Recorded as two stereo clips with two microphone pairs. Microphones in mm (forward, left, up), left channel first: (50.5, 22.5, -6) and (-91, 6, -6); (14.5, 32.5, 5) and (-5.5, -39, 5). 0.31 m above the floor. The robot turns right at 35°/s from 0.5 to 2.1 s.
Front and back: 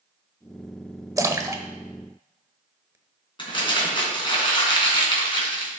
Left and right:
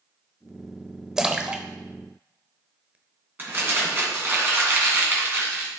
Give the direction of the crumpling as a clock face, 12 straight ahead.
2 o'clock.